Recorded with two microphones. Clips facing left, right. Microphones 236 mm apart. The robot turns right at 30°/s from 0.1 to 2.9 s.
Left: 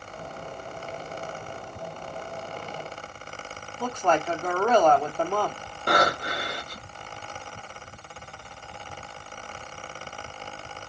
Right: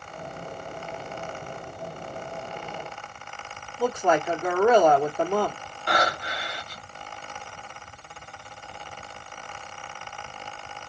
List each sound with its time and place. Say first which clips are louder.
3.8 s a woman speaking: right 3 dB; 10° right (ahead or behind), 1.3 m
5.9 s breathing: left 3 dB; 50° left (ahead or behind), 0.9 m